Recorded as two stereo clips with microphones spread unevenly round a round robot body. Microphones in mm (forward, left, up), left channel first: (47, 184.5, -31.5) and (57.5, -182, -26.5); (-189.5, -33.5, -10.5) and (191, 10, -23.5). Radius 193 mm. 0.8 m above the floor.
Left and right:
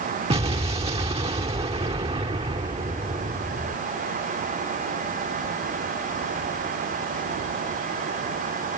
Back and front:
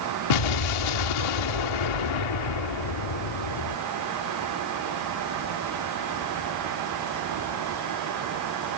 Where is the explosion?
165° right.